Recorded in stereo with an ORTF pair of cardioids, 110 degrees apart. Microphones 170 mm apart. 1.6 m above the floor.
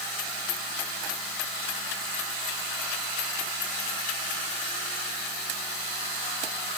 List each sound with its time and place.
Only background noise.